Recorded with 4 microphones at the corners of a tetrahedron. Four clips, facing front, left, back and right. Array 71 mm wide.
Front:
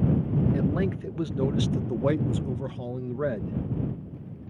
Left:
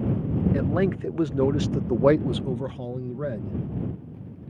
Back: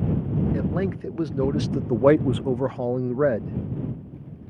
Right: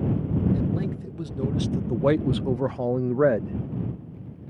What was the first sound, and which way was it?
A man speaking, 105° left.